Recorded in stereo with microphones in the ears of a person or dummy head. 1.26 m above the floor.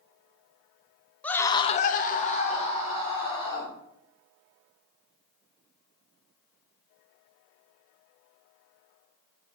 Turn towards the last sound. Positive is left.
turn(degrees=25)  # may be behind; listen again after turning